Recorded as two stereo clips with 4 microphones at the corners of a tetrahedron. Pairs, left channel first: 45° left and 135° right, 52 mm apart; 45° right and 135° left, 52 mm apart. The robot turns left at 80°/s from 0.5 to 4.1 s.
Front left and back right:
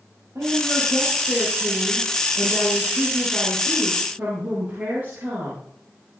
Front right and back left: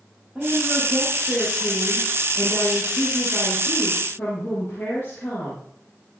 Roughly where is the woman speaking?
Behind right.